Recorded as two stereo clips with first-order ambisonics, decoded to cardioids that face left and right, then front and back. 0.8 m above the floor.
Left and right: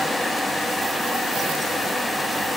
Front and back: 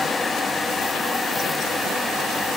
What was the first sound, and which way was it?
Only background noise.